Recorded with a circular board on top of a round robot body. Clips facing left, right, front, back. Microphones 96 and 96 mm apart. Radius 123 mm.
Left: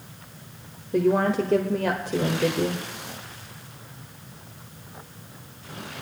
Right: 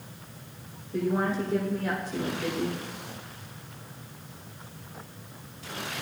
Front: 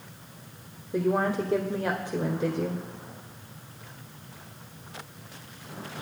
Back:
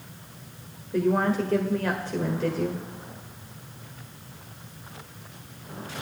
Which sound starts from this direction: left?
A woman speaking, at 0.9 s.